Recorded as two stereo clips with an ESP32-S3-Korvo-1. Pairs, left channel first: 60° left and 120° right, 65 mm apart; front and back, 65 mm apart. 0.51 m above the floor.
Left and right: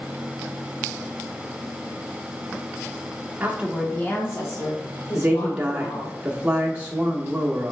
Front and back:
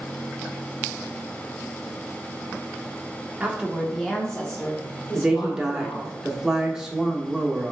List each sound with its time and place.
3.4 s a woman speaking: 130° right, 0.8 m; by 6.2 s 65° left, 2.5 m
5.2 s a woman speaking: 125° right, 0.6 m